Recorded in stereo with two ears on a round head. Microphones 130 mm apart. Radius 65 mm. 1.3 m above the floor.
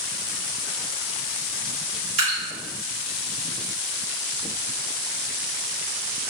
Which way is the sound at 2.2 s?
50° right (ahead or behind).